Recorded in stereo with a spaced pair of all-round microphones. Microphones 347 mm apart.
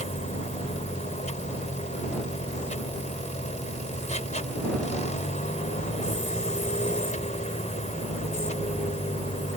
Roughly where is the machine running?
Centre.